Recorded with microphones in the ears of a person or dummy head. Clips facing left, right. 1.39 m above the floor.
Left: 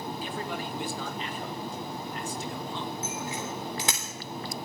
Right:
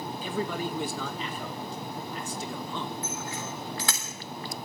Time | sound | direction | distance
0.2 | a man speaking | 75° right (ahead or behind) | 1.9 m
3.0 | a bicycle bell | 20° left (ahead or behind) | 3.5 m